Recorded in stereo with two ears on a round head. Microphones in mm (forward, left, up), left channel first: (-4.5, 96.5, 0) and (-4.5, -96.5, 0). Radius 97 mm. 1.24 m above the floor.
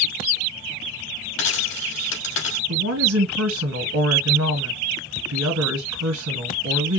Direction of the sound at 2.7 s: 80° right.